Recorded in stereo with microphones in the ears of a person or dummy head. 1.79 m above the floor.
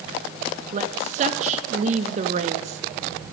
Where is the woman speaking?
35° right (ahead or behind), 0.6 m.